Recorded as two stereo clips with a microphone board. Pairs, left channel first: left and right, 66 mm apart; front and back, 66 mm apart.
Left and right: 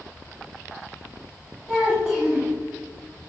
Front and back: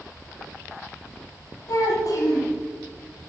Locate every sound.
1.7 s a child speaking: 10° right, 1.7 m